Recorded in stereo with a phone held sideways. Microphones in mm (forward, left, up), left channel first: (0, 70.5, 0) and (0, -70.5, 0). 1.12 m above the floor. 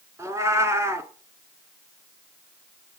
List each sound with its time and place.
0.2 s a cat meowing: 20° right (ahead or behind), 1.5 m